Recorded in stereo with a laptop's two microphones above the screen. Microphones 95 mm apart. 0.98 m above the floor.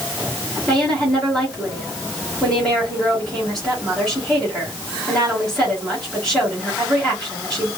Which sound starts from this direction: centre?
A woman speaking, at 0.7 s.